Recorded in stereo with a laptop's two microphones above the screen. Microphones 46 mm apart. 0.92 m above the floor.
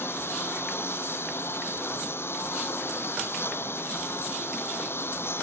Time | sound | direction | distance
0.0 | a lawn mower | 55° left (ahead or behind) | ?